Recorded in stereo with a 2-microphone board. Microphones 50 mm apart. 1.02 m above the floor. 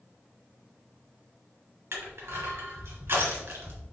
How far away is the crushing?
About 2.5 m.